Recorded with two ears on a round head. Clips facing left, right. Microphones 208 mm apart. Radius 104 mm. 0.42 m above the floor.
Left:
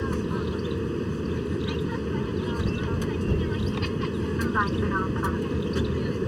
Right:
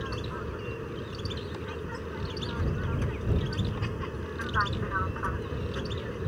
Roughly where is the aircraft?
Left.